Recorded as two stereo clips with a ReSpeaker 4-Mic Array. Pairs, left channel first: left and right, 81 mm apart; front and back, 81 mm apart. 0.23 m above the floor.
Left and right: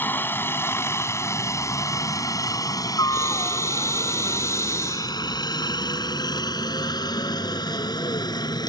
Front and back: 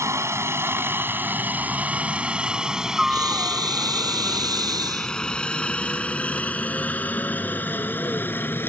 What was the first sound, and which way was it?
A helicopter, 145° left.